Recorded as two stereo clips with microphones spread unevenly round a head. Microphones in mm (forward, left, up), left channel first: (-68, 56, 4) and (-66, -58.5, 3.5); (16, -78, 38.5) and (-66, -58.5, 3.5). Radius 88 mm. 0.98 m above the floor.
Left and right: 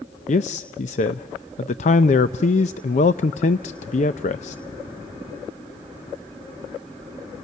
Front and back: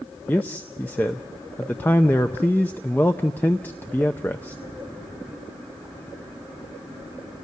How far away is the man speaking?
About 0.5 m.